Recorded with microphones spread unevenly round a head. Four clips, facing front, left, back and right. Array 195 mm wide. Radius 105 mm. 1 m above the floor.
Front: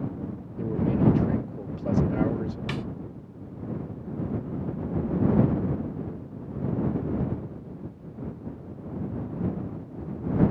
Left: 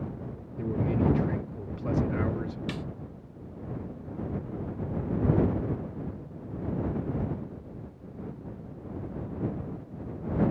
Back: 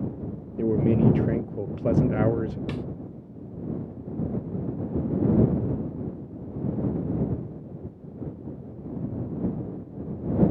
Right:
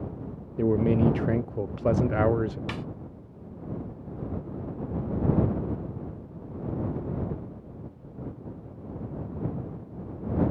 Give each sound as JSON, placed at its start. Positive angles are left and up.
{"t": 0.6, "sound": "a man speaking", "azimuth_deg": -140}
{"t": 2.7, "sound": "a snare drum", "azimuth_deg": -45}